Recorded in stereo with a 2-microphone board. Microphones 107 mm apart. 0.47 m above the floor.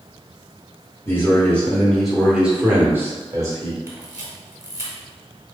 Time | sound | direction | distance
1.1 | a man speaking | 20° left (ahead or behind) | 1.8 m
3.9 | a camera shutter | 25° right (ahead or behind) | 1.8 m